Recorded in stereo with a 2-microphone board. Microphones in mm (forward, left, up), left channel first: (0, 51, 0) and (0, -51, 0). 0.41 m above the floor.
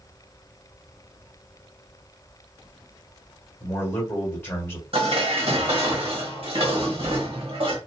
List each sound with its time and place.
3.6 s a man speaking: 25° left (ahead or behind), 1.3 m
4.9 s dishes clattering: 65° right (ahead or behind), 1.0 m